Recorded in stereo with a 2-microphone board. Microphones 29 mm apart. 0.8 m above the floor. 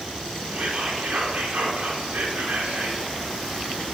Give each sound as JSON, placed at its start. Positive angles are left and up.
{"t": 0.5, "sound": "whispering", "side_deg": -75, "distance_m": 1.8}